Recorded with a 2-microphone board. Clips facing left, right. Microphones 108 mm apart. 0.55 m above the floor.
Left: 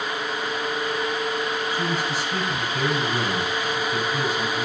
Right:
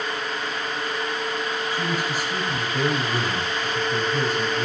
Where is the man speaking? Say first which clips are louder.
Even; 45° right (ahead or behind), 3.5 m.